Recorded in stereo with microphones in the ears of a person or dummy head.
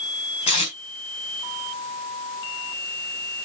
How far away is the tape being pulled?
About 4.5 m.